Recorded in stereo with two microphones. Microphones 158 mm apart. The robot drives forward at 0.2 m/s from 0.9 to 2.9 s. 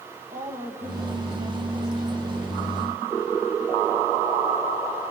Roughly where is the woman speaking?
Right.